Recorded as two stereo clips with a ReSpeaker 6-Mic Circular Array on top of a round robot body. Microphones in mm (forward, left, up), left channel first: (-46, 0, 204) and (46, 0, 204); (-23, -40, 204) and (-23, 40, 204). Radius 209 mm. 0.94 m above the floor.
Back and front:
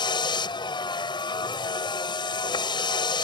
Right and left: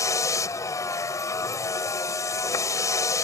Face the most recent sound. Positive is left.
turn(degrees=-140)